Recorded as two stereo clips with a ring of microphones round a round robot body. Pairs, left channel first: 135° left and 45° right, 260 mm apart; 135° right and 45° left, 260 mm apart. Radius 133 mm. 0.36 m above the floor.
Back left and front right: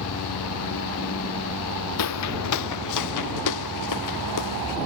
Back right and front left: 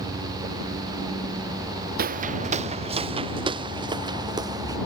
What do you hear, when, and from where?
2.0 s footsteps: 105° left; by 4.8 s 120° left